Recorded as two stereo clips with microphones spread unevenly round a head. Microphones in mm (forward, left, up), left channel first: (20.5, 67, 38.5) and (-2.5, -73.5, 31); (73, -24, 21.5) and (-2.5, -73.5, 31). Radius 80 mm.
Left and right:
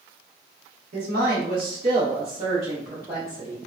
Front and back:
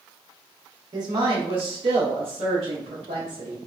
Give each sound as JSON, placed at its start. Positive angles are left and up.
{"t": 0.9, "sound": "a woman speaking", "azimuth_deg": -105, "distance_m": 0.9}